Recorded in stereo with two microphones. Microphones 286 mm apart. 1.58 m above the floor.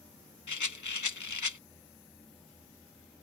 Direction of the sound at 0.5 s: 70° left (ahead or behind).